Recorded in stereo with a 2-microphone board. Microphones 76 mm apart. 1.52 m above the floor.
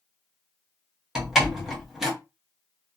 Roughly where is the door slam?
Centre.